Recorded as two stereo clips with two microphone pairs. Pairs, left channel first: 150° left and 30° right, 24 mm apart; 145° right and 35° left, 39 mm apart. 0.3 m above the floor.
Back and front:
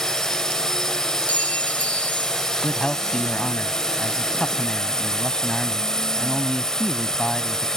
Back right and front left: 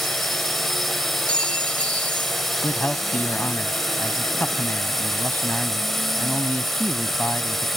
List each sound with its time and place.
0.0 s a drone: 135° left
1.3 s a clink: 155° left
2.6 s a man speaking: 170° right